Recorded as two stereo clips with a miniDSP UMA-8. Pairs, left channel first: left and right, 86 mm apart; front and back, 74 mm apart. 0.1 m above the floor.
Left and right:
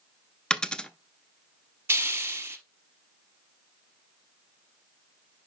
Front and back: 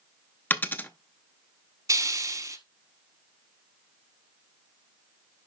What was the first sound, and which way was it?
A dropped coin, 20° left.